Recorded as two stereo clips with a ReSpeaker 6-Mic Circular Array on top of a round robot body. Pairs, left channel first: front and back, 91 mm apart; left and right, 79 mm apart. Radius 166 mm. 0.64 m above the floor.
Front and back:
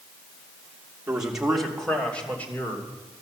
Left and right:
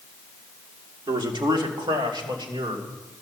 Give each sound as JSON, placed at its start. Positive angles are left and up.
{"t": 1.1, "sound": "a man speaking", "azimuth_deg": -100, "distance_m": 2.5}